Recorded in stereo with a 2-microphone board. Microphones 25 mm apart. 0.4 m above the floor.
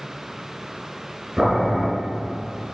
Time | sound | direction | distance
1.4 | boiling | 20° right (ahead or behind) | 6 m